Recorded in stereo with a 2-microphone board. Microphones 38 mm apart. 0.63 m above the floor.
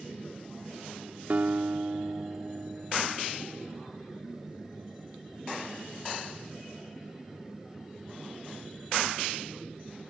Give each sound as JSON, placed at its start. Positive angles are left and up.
{"t": 1.3, "sound": "a guitar", "side_deg": -50}